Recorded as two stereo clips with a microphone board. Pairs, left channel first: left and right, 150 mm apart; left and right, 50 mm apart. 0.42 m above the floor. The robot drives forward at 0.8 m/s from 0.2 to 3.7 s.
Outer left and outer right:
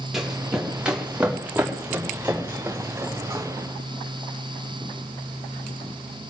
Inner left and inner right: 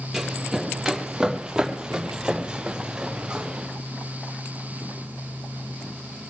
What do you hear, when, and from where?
0.1 s running footsteps: 5° right (ahead or behind), 5 m; by 3.5 s 15° right (ahead or behind), 6 m